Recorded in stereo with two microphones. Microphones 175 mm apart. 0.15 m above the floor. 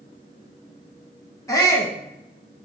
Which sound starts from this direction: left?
A shout, at 1.5 s.